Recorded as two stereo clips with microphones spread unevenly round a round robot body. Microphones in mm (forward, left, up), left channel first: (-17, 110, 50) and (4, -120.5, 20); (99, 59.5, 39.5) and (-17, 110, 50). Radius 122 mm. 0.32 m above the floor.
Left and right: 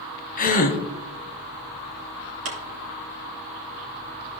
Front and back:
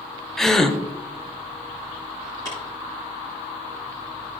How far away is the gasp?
About 1.4 m.